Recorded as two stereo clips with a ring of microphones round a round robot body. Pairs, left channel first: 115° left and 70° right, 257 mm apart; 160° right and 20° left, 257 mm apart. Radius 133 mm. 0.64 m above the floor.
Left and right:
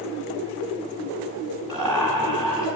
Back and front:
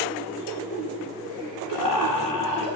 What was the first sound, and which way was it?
Laughter, 155° right.